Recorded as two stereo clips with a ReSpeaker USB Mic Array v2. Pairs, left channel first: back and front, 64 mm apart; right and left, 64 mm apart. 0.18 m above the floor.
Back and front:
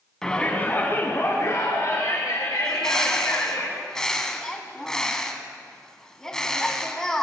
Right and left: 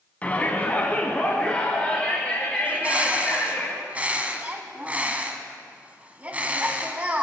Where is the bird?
115° left, 1.3 m.